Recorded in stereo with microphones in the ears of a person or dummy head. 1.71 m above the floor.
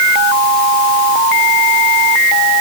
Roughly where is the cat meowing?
No cat meowing in this recording.